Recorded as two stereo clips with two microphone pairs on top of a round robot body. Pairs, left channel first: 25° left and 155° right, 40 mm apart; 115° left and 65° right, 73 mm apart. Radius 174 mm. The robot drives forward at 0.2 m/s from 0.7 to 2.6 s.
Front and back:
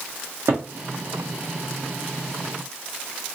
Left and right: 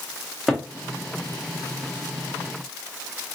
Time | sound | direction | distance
0.5 | a cupboard door | 150° right | 0.8 m